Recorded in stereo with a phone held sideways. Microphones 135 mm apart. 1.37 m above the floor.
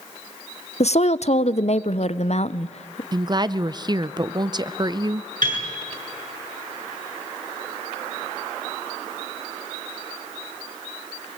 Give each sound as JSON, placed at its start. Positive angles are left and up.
{"t": 0.8, "sound": "a woman speaking", "side_deg": 55, "distance_m": 0.5}
{"t": 3.1, "sound": "a woman speaking", "side_deg": -30, "distance_m": 0.6}
{"t": 5.4, "sound": "a piano", "side_deg": -80, "distance_m": 6.5}